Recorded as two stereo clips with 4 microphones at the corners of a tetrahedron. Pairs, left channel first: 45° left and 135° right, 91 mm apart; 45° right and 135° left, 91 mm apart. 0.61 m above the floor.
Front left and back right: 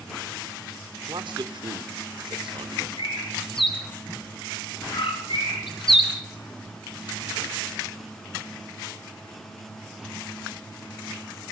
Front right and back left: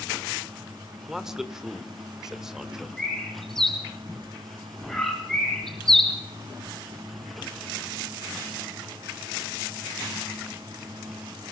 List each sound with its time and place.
1.1 s a man speaking: 140° right, 1.7 m
3.0 s a bird: 40° left, 4 m